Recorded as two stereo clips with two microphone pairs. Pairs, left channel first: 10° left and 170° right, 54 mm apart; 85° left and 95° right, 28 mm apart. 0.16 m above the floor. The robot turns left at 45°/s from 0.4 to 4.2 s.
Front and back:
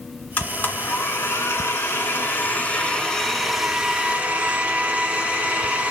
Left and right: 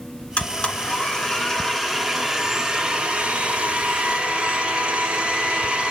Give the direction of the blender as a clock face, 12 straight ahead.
10 o'clock.